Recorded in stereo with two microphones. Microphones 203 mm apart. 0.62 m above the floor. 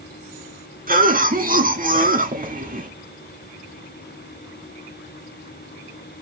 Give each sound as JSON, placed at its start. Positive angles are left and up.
{"t": 0.9, "sound": "a cough", "side_deg": -45, "distance_m": 1.2}